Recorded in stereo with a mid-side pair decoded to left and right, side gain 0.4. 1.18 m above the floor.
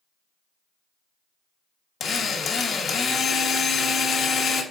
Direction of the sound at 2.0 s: 55° left.